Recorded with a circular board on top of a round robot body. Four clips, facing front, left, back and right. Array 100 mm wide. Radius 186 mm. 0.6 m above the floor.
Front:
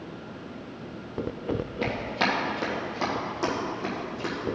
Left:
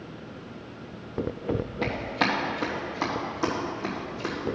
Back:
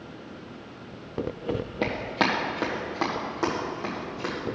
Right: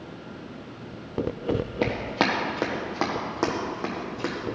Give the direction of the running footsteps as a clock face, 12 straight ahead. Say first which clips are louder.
Right 2 dB, back 3 dB; 4 o'clock.